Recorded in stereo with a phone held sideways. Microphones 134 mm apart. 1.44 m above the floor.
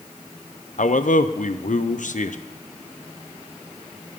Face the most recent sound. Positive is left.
turn(degrees=80)